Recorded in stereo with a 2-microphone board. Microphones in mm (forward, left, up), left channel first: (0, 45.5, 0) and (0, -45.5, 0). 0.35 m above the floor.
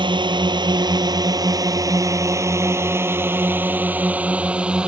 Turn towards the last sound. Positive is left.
turn(degrees=-10)  # may be behind; listen again after turning